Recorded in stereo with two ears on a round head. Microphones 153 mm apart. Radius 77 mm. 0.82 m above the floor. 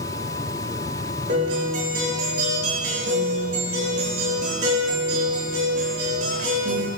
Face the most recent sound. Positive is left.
turn(degrees=-65)  # may be behind; listen again after turning